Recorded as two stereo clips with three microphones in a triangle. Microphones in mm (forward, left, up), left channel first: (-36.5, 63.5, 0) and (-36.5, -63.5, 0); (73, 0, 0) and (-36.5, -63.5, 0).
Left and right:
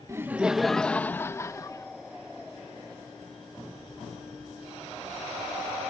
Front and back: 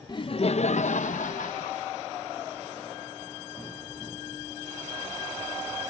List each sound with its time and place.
0.1 s laughter: 25° right; by 1.9 s 30° left